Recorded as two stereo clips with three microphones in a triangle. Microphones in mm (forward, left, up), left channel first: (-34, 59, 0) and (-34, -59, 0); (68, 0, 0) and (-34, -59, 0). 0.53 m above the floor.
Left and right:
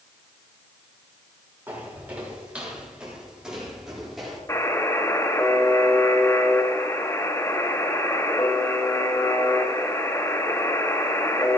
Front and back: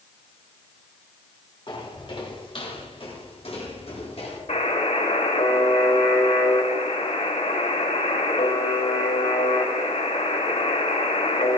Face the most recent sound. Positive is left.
turn(degrees=30)